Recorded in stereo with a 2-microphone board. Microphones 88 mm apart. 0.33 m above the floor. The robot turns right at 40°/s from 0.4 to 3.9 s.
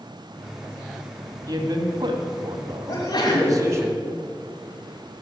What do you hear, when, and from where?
1.5 s a man speaking: 130° right, 1.9 m; by 3.9 s 30° right, 1.9 m
2.9 s a sneeze: 60° left (ahead or behind), 2 m; by 3.6 s 55° left (ahead or behind), 2 m